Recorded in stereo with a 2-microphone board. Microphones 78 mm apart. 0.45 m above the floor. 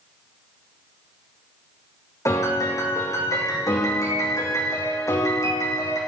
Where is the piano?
40° left (ahead or behind), 6 m.